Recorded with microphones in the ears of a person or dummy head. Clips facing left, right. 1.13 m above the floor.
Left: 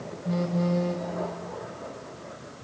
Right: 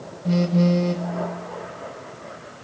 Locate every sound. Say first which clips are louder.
0.2 s a phone buzzing: right 7 dB; 40° right (ahead or behind), 1.0 m